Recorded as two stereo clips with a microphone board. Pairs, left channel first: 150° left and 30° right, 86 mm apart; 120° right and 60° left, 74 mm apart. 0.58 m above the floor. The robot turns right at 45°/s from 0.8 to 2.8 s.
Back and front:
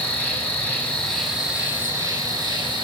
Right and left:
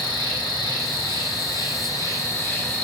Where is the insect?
140° right, 0.8 m; by 2.8 s 50° right, 0.8 m.